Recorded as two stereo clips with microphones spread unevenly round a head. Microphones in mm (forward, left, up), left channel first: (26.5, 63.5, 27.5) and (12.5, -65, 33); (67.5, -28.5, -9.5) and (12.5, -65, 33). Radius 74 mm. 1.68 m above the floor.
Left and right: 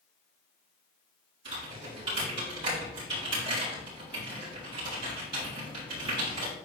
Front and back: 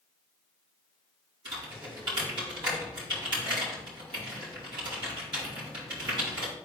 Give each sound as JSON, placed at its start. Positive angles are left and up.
{"t": 1.4, "sound": "typing on a keyboard", "azimuth_deg": -155, "distance_m": 4.0}